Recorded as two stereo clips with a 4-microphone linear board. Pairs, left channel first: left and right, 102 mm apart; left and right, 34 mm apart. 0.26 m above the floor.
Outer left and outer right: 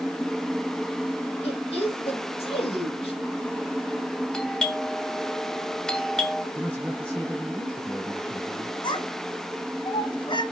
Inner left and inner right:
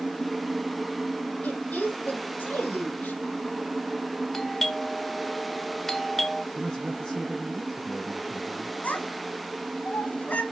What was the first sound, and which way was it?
A woman speaking, 70° left (ahead or behind).